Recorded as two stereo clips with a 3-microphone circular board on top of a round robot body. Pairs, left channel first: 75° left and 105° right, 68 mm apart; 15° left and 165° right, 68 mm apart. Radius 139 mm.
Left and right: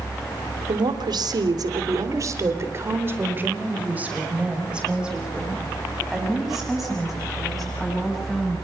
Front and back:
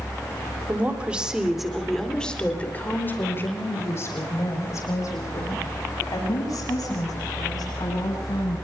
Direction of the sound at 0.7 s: 95° right.